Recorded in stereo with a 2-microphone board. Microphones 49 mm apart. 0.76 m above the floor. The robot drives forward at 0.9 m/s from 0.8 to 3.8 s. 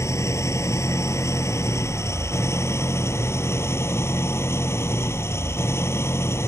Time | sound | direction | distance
0.0 | an engine running | 80° left | ?